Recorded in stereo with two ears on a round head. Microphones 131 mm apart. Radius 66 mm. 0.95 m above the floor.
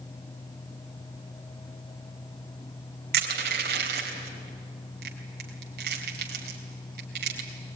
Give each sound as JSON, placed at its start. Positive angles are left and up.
{"t": 3.1, "sound": "crushing", "side_deg": -70, "distance_m": 3.5}